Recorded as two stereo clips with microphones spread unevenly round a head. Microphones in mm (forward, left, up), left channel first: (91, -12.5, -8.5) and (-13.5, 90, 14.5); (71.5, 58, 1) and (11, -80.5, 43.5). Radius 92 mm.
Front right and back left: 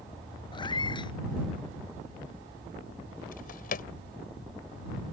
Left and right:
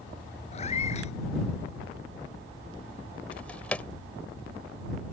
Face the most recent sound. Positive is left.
turn(degrees=-25)